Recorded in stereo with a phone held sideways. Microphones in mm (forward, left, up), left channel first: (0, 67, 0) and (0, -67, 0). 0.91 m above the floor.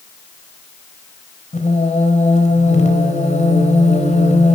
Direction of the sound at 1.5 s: 60° left (ahead or behind).